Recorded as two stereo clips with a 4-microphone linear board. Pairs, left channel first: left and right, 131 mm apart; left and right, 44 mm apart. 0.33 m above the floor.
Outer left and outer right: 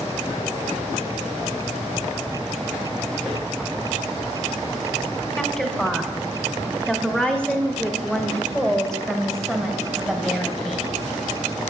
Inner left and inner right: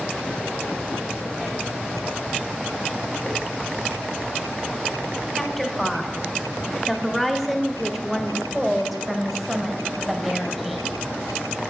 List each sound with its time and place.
5.4 s a woman speaking: 10° left (ahead or behind), 1.5 m; by 11.1 s centre (ahead or behind), 2.5 m